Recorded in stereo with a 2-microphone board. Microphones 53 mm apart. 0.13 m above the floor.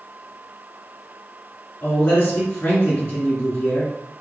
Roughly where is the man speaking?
Left.